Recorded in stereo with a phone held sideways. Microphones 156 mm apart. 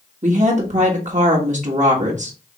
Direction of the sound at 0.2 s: 50° right (ahead or behind).